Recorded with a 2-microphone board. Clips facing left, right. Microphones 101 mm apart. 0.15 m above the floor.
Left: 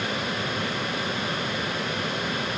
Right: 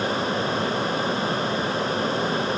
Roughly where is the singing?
No singing in this recording.